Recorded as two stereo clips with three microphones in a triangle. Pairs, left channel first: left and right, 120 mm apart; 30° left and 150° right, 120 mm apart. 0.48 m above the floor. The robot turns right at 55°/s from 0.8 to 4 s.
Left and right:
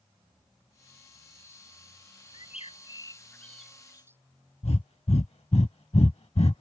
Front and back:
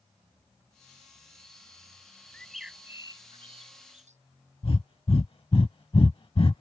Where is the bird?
110° left; by 4.2 s 160° right.